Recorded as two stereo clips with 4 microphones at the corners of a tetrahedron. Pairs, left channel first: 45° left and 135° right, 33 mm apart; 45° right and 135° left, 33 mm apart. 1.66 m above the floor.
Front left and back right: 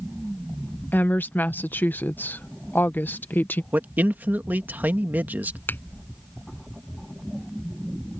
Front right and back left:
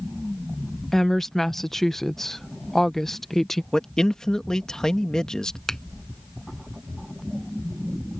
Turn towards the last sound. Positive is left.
turn(degrees=35)